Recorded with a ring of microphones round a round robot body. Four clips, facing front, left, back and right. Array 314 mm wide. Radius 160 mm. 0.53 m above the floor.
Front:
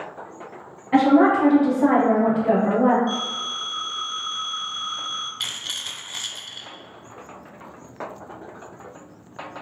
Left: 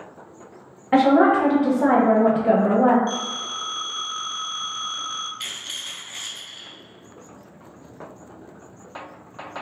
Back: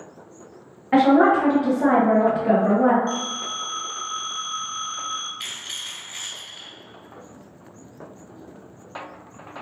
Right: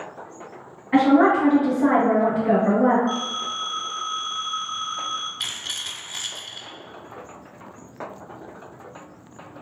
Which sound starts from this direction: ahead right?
A rattle, at 5.4 s.